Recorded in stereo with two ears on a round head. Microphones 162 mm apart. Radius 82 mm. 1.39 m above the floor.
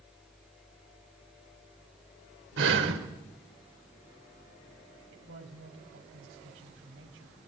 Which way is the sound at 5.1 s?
85° right.